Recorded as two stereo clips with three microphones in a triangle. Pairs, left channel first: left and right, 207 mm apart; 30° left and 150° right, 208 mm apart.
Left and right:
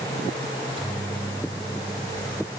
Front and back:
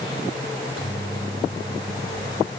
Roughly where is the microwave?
Behind right.